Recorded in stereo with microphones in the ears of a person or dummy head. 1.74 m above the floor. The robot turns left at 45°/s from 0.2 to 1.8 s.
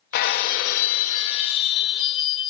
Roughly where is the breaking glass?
Behind left.